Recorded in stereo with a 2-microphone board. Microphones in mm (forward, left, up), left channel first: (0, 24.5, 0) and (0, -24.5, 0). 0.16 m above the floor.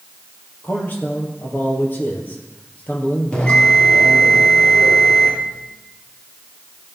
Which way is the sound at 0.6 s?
40° left (ahead or behind).